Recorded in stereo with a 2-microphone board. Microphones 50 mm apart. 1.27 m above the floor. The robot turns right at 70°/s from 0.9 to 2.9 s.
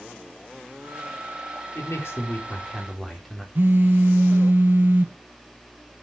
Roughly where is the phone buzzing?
Right.